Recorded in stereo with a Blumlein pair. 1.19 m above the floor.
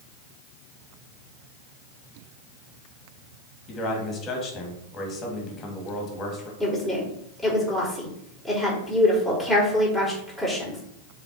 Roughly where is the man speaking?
Ahead left.